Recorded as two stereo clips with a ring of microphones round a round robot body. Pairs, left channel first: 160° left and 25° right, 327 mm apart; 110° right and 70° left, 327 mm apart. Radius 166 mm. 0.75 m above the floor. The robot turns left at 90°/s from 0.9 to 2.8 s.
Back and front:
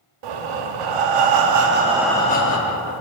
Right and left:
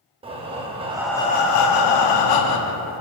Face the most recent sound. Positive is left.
turn(degrees=180)